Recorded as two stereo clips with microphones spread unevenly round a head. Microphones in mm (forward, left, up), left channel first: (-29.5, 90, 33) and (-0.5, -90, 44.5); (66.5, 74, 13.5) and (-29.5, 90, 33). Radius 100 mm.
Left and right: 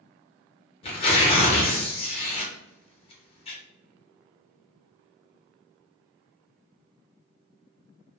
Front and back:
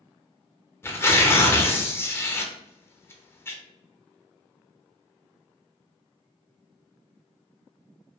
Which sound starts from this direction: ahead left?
Tearing paper, at 0.8 s.